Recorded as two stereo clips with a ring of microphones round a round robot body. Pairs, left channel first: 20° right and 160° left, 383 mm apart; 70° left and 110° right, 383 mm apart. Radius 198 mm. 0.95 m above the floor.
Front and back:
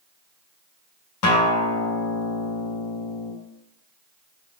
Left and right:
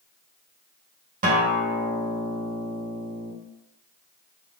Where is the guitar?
50° right, 0.8 m.